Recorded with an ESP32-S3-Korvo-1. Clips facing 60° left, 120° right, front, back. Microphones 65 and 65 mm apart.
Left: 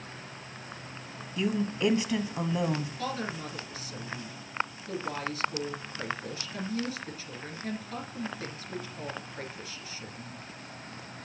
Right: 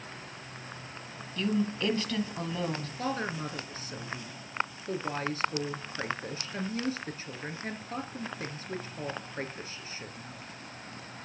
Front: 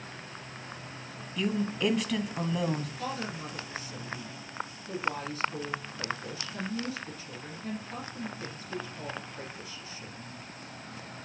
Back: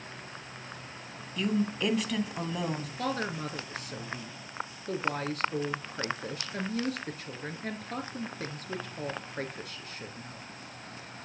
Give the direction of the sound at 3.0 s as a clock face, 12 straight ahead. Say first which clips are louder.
Right 1 dB, back 3 dB; 6 o'clock.